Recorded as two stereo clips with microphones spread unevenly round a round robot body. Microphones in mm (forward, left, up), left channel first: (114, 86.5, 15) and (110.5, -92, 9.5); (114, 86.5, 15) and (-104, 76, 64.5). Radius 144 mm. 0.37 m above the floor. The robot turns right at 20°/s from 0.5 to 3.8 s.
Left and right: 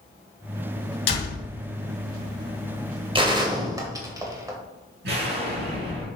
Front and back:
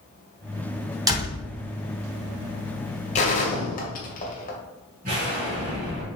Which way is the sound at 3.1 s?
40° right.